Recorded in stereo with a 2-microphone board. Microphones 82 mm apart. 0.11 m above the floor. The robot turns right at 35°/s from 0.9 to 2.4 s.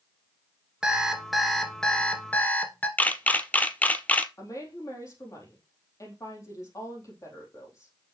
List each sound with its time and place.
0.8 s an alarm clock: 15° right, 1.1 m; by 2.9 s 35° left, 1.1 m
3.0 s a camera shutter: 20° left (ahead or behind), 0.5 m
4.4 s a woman speaking: 45° left (ahead or behind), 3.5 m